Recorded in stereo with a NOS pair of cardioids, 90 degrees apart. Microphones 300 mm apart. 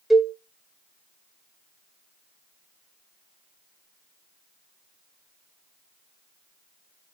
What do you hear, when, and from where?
0.1 s a cowbell: straight ahead, 0.6 m